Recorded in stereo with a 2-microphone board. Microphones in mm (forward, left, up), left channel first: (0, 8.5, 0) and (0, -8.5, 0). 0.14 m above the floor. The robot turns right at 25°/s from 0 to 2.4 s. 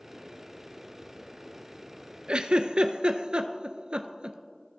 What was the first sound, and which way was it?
A giggle, 65° right (ahead or behind).